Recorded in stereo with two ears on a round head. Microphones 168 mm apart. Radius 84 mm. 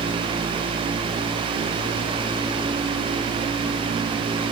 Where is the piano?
No piano in this recording.